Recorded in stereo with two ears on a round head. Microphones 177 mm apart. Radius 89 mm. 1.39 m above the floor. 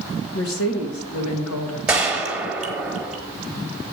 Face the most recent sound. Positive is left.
turn(degrees=-5)  # may be behind; listen again after turning